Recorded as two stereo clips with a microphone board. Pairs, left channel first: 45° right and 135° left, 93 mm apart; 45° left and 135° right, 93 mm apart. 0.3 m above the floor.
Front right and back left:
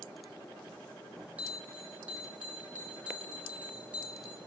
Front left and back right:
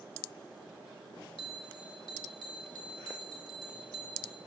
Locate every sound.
1.4 s a bell: 60° left, 2.5 m